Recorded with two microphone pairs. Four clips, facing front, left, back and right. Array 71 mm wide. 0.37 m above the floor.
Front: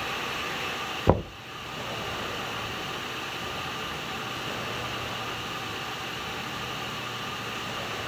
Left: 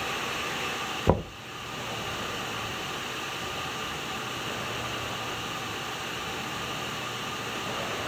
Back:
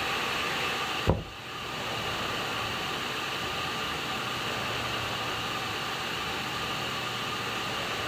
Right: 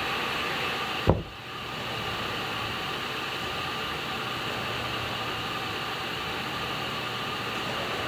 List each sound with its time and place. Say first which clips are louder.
1.1 s knocking: left 1 dB, front 8 dB; 5° left, 0.6 m